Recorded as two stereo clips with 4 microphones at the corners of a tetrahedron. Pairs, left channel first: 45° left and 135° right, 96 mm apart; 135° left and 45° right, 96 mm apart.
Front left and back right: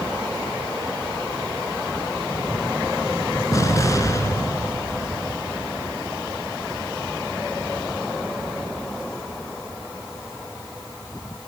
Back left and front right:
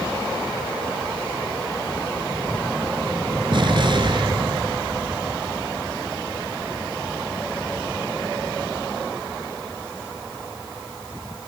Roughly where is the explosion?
Ahead.